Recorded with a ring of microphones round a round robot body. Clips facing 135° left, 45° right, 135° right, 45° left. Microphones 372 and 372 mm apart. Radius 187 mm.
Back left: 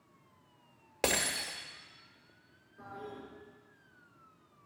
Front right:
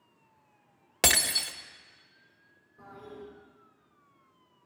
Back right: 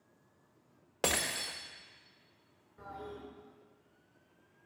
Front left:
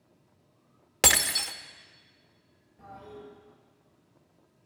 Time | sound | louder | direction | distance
1.0 | breaking glass | even, front left 4 dB | 5° left | 1.0 m
2.8 | a toilet flushing | even, even | 145° right | 6.5 m